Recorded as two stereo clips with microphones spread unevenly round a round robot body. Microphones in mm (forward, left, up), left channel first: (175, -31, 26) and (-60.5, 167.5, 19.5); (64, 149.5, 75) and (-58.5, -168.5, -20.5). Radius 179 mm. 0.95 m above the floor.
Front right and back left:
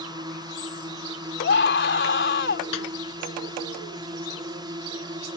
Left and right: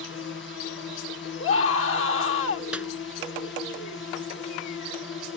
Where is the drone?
95° left.